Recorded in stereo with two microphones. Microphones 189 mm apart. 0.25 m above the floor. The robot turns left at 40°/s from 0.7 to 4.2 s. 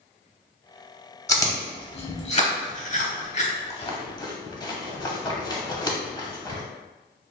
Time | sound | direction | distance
1.3 | chewing | 15° left (ahead or behind) | 0.8 m